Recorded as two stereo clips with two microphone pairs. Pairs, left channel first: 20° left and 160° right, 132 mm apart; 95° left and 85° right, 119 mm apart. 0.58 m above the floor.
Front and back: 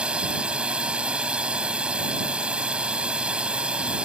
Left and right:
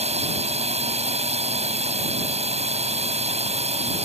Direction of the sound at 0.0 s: 80° right.